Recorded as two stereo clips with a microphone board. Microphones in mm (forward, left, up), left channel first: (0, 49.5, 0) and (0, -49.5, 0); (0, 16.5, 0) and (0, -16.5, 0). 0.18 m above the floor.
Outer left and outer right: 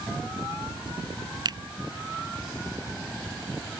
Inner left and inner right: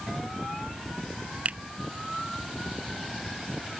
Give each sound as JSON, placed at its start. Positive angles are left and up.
{"t": 1.4, "sound": "a finger snap", "side_deg": -50}